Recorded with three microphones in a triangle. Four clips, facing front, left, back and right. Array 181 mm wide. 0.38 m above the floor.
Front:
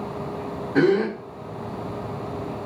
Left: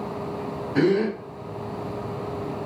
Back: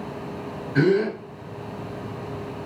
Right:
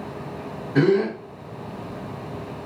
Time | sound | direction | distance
0.8 | a gasp | 5° right | 1.6 m